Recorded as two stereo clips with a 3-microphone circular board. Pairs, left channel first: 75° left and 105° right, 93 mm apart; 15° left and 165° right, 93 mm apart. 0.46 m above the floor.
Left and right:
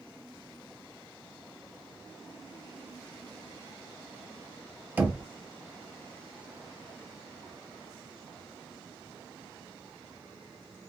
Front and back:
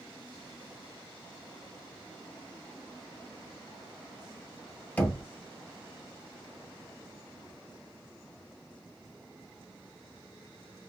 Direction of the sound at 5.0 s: 45° right.